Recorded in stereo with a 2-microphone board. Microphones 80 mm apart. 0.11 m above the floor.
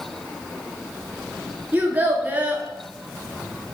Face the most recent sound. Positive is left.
turn(degrees=-25)  # may be behind; listen again after turning